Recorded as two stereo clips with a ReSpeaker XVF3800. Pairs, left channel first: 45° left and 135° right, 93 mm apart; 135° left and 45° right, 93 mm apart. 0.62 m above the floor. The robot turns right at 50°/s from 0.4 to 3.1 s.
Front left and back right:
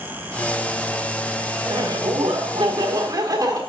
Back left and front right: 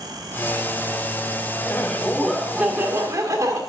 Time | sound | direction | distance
1.6 | laughter | 165° right | 1.6 m